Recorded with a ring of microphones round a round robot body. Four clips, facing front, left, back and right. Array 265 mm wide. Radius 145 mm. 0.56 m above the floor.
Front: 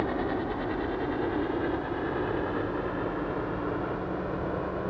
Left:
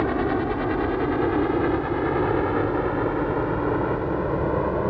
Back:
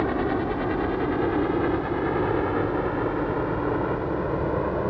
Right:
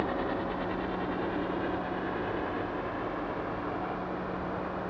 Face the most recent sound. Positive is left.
turn(degrees=115)